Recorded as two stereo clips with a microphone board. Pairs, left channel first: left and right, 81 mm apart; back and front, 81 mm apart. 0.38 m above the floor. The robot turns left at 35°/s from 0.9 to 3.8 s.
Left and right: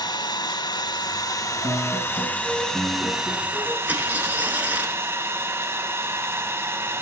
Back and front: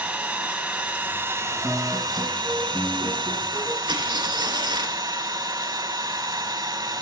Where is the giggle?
No giggle in this recording.